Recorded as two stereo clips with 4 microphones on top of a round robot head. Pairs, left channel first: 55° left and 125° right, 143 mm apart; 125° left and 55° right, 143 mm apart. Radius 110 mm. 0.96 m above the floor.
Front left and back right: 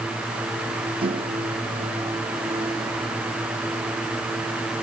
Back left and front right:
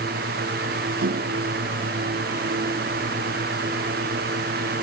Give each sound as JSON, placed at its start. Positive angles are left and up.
{"t": 1.0, "sound": "a microwave", "azimuth_deg": -75}